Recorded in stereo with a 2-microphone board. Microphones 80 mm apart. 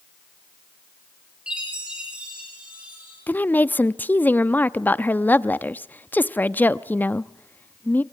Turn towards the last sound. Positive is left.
turn(degrees=25)  # may be behind; listen again after turning